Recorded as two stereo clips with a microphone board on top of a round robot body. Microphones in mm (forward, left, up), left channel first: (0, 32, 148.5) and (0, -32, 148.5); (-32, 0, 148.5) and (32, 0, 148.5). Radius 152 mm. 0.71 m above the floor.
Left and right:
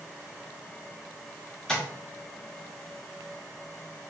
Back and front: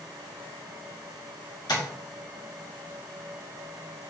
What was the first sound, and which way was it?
Tapping, 170° left.